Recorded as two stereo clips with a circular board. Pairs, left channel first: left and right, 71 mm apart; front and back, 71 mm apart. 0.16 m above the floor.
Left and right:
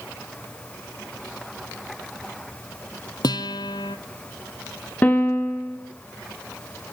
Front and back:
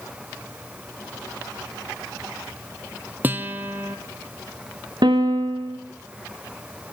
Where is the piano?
160° left, 2.5 m.